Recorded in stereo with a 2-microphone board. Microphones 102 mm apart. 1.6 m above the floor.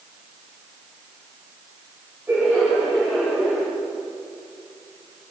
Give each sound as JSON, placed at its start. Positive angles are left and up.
{"t": 2.3, "sound": "laughter", "side_deg": -20, "distance_m": 9.5}